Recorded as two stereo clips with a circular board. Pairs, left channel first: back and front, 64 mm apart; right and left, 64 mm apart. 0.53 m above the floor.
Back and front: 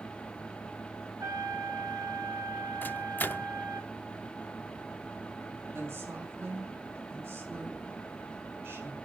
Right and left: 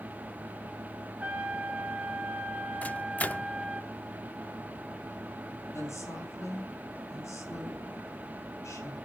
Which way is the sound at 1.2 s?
20° left.